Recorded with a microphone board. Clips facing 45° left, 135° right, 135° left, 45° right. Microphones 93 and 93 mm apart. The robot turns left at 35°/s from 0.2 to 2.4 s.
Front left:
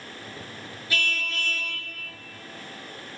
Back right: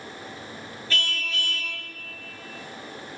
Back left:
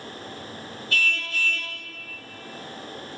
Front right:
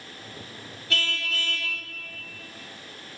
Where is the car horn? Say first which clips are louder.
Front left 1 dB, back left 2 dB; 30° right, 7 m; by 1.7 s 60° right, 7 m.